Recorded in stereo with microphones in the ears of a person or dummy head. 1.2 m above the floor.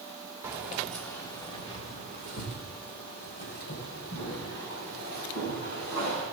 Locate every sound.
0.4 s keys jangling: 10° right (ahead or behind), 1.9 m; by 6.2 s 70° left (ahead or behind), 7.5 m